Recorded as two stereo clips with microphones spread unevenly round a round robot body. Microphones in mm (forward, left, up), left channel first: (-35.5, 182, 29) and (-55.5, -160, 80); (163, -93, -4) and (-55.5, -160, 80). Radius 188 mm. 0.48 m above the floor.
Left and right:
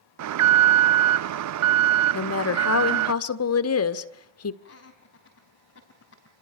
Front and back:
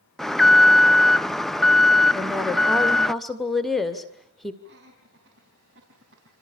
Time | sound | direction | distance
0.2 | an alarm | 55° right | 0.6 m
2.1 | a woman speaking | 90° left | 1.6 m
4.6 | laughter | 140° left | 4 m